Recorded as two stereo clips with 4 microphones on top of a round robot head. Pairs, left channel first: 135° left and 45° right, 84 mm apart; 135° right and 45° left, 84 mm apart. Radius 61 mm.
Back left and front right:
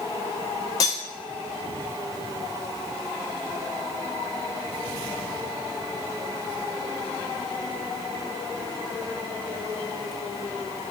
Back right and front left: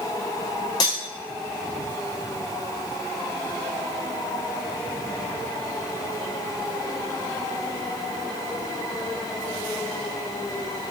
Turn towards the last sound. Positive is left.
turn(degrees=-175)